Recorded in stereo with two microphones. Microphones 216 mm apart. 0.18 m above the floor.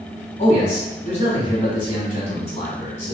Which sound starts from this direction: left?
A man speaking, at 0.4 s.